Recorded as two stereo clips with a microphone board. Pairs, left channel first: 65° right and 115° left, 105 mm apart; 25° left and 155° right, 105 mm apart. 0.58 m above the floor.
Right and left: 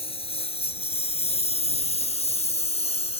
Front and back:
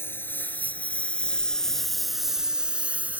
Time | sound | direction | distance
0.0 | a lawn mower | 45° right | ?